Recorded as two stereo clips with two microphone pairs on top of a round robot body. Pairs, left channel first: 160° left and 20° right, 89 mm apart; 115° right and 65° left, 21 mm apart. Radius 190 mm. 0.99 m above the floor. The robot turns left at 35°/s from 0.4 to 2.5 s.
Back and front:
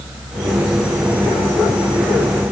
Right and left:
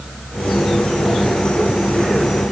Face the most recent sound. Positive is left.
No sound to turn to.